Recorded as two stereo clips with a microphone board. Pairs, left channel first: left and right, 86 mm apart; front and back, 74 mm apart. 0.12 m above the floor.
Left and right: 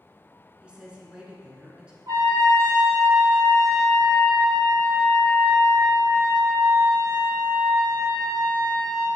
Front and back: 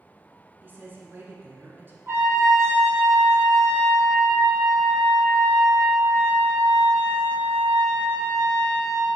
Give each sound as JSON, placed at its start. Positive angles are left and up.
{"t": 0.6, "sound": "a woman speaking", "azimuth_deg": -155, "distance_m": 1.2}
{"t": 2.1, "sound": "a trumpet", "azimuth_deg": -130, "distance_m": 1.8}